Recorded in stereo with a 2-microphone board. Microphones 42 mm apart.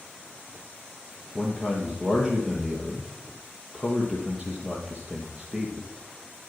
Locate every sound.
1.4 s a man speaking: 20° right (ahead or behind), 3 m